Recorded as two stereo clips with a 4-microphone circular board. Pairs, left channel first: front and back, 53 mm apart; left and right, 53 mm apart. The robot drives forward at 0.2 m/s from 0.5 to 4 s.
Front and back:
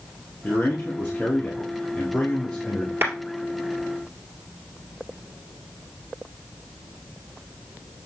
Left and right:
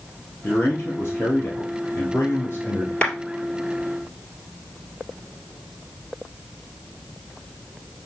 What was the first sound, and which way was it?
A man speaking, 50° left.